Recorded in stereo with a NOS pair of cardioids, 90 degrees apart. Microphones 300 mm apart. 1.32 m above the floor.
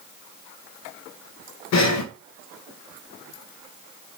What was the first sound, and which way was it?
Breathing, 60° left.